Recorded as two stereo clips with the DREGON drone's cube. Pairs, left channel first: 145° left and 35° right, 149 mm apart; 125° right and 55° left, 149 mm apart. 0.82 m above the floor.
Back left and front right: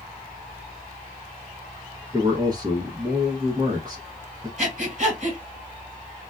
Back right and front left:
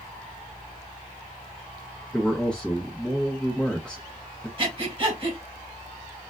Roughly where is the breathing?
Ahead.